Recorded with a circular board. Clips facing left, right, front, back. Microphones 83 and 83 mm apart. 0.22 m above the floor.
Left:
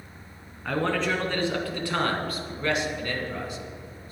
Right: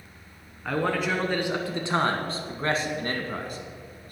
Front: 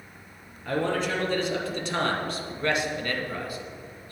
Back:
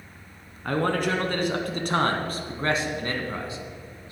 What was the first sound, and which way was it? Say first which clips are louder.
A man speaking: even, back 2 dB; 175° right.